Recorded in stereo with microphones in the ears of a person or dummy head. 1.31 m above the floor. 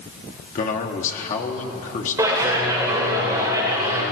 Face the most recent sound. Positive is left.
turn(degrees=-15)  # may be behind; listen again after turning